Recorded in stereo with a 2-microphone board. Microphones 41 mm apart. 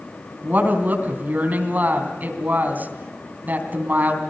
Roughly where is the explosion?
No explosion in this recording.